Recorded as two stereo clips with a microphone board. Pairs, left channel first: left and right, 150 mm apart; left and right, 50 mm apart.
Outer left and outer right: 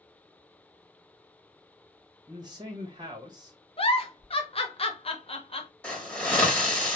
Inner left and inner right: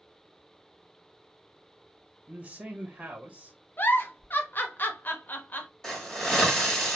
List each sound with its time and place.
2.3 s a man speaking: 30° right (ahead or behind), 0.9 m
3.8 s a giggle: 40° left (ahead or behind), 0.6 m
5.8 s a hiss: 10° left (ahead or behind), 0.9 m